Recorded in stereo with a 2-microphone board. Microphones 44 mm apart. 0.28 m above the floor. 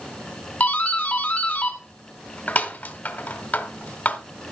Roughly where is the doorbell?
Left.